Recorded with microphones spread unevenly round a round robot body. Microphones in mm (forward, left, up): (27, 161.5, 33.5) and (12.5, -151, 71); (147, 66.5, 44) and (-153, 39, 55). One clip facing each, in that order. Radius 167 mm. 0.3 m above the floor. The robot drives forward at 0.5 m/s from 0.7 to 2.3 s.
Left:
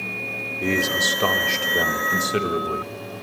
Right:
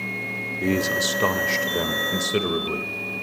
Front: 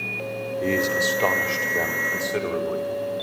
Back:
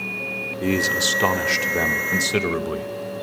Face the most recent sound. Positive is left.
turn(degrees=175)